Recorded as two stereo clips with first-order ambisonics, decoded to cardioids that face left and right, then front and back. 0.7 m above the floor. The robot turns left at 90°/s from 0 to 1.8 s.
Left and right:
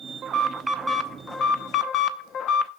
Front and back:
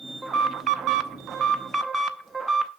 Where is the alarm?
115° right, 0.6 m; by 2.7 s 100° left, 0.6 m.